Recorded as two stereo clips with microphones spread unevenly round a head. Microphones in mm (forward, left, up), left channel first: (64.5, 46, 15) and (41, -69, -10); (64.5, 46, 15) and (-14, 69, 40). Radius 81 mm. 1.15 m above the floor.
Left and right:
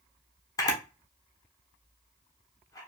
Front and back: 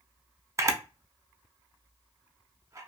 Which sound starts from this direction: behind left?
A camera shutter, at 0.6 s.